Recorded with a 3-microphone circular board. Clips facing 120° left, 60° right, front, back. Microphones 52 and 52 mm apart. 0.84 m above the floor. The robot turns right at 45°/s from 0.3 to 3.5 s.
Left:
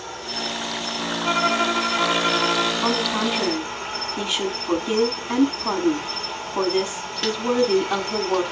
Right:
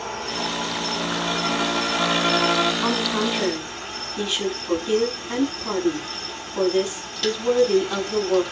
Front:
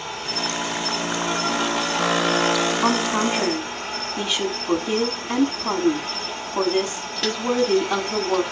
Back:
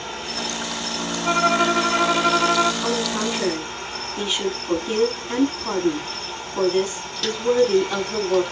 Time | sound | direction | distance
0.0 | an insect | 90° right | 6.5 m
1.2 | a violin | 155° left | 0.9 m
2.8 | a woman speaking | 20° left | 6.5 m